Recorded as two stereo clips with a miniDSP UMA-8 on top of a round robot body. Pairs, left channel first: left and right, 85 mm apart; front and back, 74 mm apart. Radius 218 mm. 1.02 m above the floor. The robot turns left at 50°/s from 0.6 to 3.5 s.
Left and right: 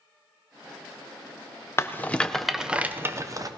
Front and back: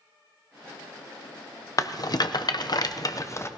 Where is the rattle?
35° left, 0.8 m; by 3.5 s 50° right, 0.8 m.